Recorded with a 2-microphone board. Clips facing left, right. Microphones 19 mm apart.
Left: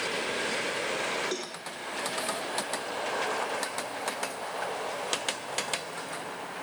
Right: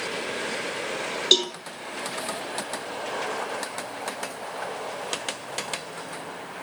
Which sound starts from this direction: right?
A cowbell, at 1.3 s.